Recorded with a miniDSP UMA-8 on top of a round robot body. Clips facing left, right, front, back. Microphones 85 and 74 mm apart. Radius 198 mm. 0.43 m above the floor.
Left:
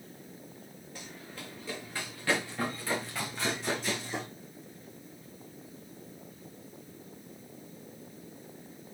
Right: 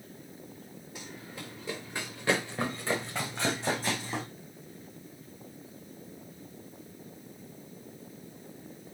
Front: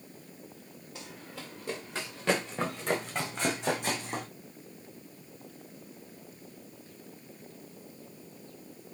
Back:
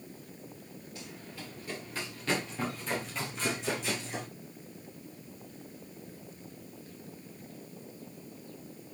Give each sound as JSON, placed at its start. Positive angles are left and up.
{"t": 0.9, "sound": "running footsteps", "azimuth_deg": -10, "distance_m": 4.0}